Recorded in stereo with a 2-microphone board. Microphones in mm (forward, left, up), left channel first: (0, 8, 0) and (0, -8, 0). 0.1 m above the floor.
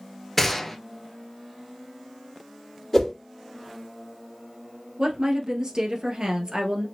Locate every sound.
0.4 s a gunshot: 10° left (ahead or behind), 0.9 m
2.9 s a whoosh: 15° left (ahead or behind), 2 m
5.0 s a woman speaking: 45° right (ahead or behind), 1.6 m